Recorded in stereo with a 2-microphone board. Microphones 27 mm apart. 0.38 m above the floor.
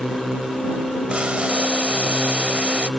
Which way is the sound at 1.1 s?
45° right (ahead or behind).